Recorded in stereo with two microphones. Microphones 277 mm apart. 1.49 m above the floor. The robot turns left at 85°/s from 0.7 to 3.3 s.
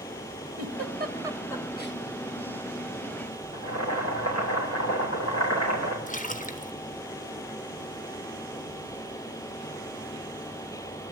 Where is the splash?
25° left (ahead or behind), 1.3 m.